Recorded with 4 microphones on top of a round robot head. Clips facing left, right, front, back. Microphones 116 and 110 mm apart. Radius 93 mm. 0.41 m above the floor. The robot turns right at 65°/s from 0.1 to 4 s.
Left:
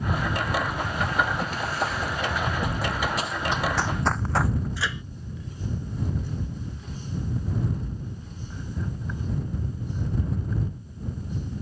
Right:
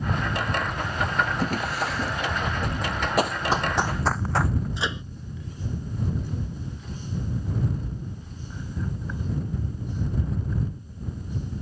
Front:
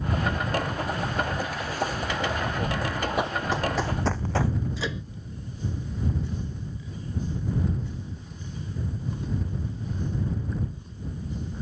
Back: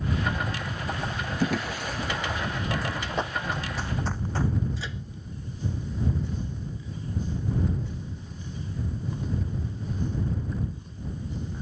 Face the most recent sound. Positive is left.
turn(degrees=-25)